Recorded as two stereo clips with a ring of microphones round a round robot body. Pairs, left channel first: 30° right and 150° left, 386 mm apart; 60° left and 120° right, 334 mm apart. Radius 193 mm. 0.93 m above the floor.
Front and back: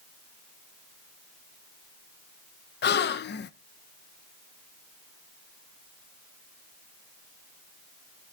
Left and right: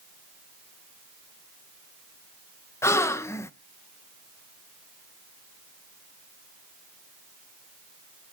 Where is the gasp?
15° right, 0.5 m.